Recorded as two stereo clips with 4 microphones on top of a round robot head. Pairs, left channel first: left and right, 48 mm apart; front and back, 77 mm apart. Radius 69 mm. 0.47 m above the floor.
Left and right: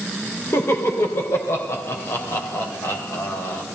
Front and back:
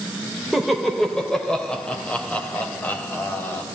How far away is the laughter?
About 2 m.